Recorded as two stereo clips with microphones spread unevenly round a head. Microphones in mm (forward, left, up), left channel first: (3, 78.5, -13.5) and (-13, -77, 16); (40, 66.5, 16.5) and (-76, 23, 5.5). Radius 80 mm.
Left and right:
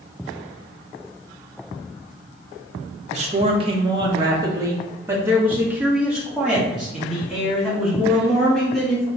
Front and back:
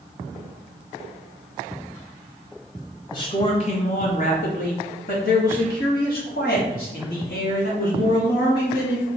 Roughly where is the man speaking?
Ahead right.